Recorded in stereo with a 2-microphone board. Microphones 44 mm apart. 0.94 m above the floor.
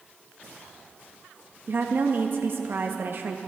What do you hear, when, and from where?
1.7 s a woman speaking: 55° right (ahead or behind), 0.7 m